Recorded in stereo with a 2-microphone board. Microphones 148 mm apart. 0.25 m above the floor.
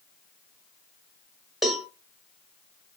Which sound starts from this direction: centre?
A cowbell, at 1.6 s.